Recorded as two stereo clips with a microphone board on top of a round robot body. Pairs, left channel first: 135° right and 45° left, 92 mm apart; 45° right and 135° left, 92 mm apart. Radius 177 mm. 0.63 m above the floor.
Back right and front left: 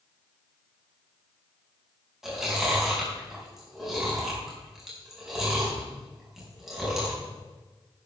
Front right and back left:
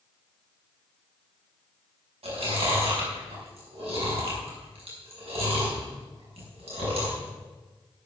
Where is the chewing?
130° left, 5 m.